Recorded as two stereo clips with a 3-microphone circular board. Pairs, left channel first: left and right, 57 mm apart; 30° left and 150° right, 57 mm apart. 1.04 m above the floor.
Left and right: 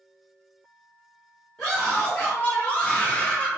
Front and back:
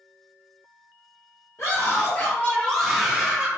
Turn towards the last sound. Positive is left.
turn(degrees=150)